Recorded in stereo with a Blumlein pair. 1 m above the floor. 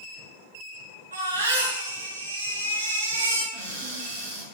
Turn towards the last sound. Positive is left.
turn(degrees=-55)